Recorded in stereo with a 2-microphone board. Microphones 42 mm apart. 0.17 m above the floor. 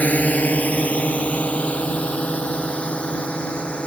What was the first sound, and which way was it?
A drone, 40° left (ahead or behind).